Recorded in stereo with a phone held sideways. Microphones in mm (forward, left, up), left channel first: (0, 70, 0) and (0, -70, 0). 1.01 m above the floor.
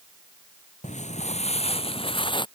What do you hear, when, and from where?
0.8 s footsteps: 60° left (ahead or behind); by 2.5 s 35° left (ahead or behind)